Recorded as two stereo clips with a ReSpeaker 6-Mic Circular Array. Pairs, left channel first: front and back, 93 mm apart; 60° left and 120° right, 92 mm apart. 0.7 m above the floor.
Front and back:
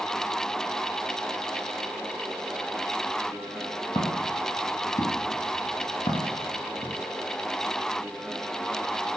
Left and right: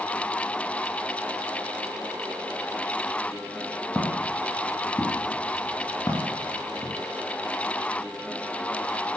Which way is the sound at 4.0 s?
15° right.